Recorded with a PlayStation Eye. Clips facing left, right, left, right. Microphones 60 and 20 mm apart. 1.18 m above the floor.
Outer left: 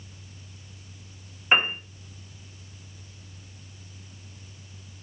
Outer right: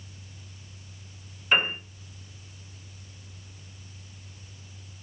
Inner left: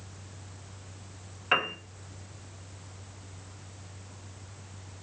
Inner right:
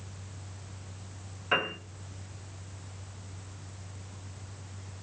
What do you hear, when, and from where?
1.5 s a piano: 30° left (ahead or behind), 0.6 m